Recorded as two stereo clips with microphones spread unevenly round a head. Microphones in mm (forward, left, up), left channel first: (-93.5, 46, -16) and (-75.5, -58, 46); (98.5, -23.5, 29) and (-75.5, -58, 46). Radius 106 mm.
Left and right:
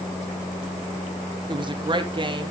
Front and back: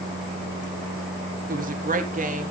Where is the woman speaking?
125° right, 1.5 m.